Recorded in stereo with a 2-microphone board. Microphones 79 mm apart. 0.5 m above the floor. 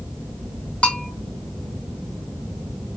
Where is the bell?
15° left (ahead or behind), 0.7 m.